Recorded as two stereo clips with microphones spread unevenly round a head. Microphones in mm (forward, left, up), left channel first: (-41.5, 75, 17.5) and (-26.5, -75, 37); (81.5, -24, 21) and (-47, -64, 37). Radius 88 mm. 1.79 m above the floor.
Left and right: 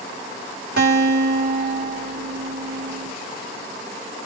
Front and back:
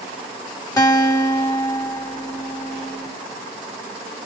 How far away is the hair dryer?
I don't hear a hair dryer.